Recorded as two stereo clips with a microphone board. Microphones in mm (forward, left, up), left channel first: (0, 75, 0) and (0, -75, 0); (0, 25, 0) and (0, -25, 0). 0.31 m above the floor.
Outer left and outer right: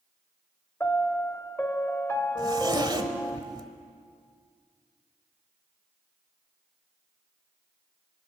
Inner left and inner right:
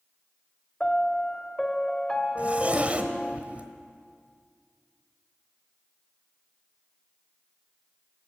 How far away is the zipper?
About 1.1 m.